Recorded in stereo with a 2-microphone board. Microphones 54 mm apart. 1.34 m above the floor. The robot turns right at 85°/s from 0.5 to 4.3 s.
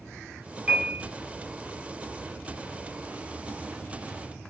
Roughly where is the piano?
Behind right.